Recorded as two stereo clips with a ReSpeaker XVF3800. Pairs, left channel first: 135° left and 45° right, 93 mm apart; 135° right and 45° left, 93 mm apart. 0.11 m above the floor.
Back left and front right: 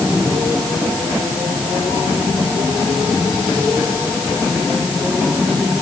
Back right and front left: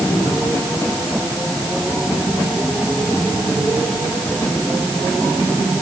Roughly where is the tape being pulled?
I don't hear tape being pulled.